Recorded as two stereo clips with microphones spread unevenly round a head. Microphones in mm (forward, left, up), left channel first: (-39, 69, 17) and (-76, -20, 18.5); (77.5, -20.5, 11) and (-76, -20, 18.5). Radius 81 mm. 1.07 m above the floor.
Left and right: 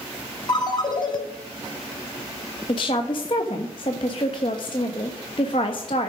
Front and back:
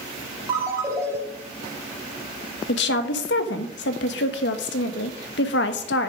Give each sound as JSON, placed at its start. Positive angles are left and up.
{"t": 0.5, "sound": "a ringtone", "azimuth_deg": 110, "distance_m": 3.5}
{"t": 2.7, "sound": "a woman speaking", "azimuth_deg": 10, "distance_m": 1.1}